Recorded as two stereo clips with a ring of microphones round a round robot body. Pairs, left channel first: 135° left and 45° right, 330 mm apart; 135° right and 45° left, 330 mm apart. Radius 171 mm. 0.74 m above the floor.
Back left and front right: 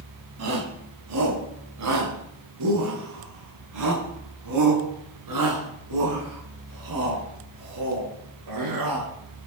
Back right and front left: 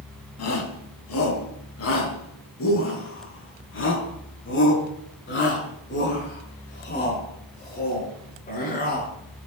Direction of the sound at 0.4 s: 90° right.